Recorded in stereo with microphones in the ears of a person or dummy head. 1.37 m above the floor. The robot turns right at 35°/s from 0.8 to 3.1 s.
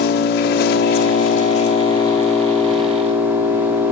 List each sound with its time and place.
0.0 s an engine running: 110° left, 2.0 m; by 3.9 s 170° right, 2.0 m